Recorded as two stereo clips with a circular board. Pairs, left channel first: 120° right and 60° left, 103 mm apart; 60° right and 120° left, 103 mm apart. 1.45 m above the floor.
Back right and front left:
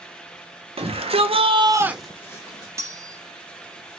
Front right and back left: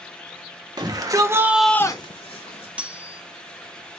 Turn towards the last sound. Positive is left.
turn(degrees=55)